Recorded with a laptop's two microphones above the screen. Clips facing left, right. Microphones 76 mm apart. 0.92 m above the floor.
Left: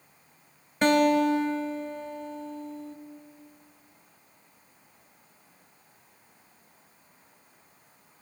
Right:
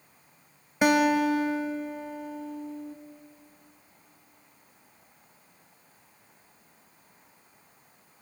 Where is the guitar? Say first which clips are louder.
Left 1 dB; 10° right (ahead or behind), 1.0 m.